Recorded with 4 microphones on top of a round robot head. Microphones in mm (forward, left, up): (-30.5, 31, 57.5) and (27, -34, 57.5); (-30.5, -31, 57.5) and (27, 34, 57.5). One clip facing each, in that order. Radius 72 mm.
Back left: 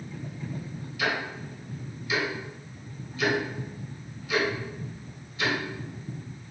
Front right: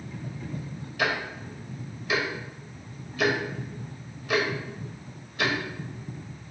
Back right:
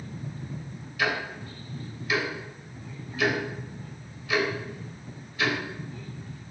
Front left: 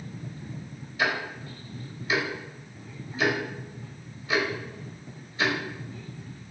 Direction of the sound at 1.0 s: 15° right.